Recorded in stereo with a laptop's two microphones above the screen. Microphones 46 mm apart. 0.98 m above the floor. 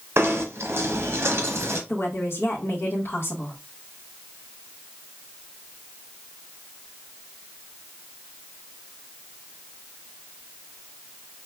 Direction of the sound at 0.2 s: 65° right (ahead or behind).